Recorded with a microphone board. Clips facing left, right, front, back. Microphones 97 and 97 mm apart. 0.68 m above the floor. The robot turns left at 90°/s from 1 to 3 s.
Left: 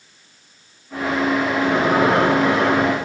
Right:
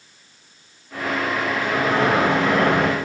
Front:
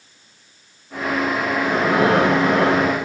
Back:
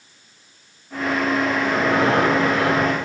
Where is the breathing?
45° left, 6.5 m; by 3.1 s 80° right, 6.5 m.